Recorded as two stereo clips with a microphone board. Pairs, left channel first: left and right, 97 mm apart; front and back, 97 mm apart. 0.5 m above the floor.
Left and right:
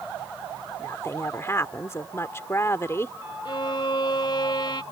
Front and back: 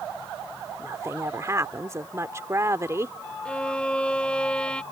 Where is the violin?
75° left.